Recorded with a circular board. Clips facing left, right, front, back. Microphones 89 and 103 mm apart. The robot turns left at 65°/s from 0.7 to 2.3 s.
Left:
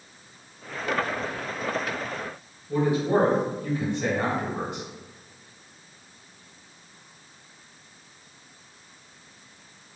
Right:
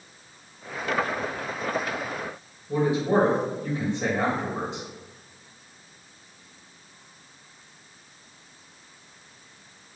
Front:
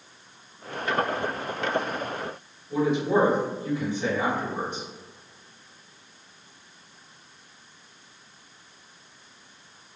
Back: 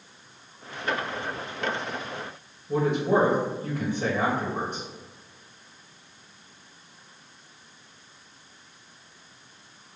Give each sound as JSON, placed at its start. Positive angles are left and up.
{"t": 2.7, "sound": "a man speaking", "azimuth_deg": -155, "distance_m": 1.9}